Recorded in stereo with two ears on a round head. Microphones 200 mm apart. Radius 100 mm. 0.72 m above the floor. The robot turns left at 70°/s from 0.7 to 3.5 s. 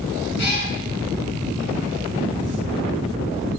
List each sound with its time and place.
0.4 s a cat meowing: 50° left (ahead or behind), 3 m